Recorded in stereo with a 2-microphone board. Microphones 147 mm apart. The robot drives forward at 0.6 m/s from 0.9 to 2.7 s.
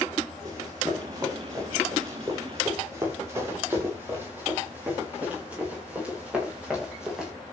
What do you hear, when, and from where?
0.5 s running footsteps: 25° right (ahead or behind), 8.5 m; by 7.3 s 5° right (ahead or behind), 8 m